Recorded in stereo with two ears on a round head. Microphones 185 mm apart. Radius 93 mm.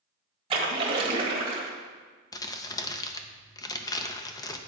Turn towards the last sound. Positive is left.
turn(degrees=15)  # may be behind; listen again after turning